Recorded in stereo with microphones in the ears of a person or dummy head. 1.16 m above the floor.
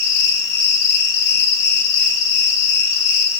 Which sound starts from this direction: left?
An insect, at 0.0 s.